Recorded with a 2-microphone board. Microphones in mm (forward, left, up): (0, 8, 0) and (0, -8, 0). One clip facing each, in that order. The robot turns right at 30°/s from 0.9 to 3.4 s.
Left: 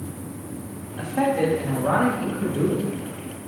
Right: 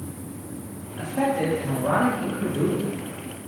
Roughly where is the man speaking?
Behind left.